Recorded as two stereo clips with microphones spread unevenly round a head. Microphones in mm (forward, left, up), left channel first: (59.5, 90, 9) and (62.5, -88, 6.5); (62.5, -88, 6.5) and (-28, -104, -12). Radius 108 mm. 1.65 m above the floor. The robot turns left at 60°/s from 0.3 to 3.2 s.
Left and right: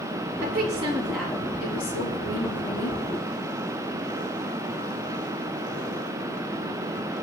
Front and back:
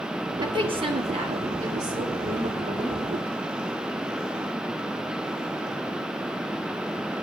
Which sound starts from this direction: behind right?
A woman speaking, at 0.4 s.